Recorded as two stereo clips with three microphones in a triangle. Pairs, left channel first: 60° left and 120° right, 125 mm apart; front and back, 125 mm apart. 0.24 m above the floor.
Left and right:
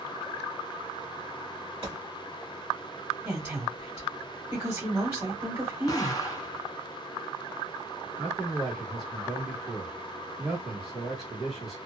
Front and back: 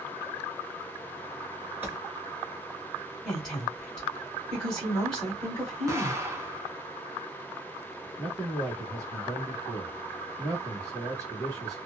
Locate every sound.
1.8 s a gunshot: 115° right, 1.7 m
3.2 s a woman speaking: 80° right, 1.6 m
5.9 s an explosion: 115° left, 0.7 m
8.2 s a man speaking: 150° left, 1.3 m